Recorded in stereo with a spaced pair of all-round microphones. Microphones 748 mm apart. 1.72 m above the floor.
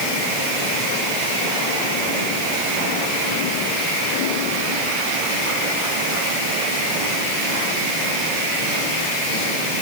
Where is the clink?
I don't hear a clink.